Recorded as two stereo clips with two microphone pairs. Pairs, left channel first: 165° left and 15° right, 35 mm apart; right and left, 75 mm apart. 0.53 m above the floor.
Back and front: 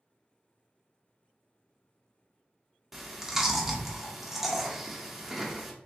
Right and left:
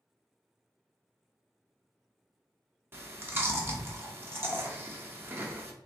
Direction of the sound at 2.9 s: 60° left.